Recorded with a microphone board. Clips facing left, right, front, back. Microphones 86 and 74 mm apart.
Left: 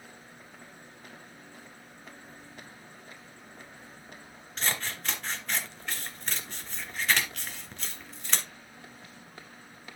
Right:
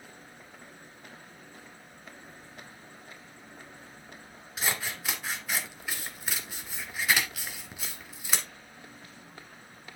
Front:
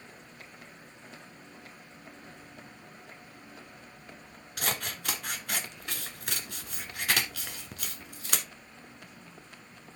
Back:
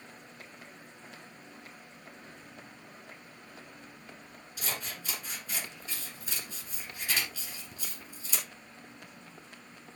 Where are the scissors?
10° right, 1.9 m.